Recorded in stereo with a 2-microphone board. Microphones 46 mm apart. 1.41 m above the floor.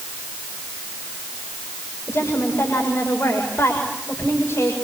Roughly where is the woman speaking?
Left.